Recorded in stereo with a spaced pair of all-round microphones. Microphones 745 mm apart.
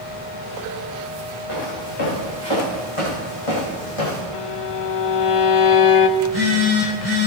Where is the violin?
45° left (ahead or behind), 0.9 m.